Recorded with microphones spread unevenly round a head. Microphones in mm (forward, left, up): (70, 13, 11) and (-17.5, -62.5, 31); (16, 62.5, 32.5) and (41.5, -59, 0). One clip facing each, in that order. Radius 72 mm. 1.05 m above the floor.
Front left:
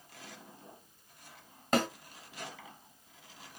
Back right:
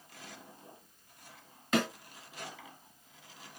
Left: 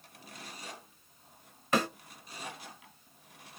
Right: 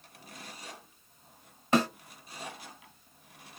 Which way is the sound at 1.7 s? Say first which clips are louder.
Front left 1 dB, right 3 dB; 10° right.